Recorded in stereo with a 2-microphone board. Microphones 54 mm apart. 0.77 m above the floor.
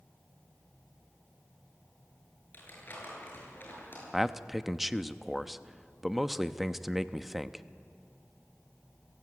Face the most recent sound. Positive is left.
turn(degrees=-5)  # may be behind; listen again after turning